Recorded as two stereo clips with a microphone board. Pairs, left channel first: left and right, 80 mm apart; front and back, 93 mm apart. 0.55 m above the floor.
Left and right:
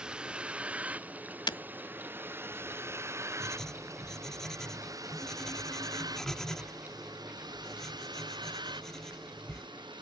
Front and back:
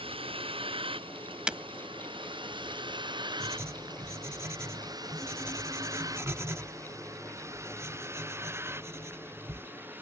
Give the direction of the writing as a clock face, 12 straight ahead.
6 o'clock.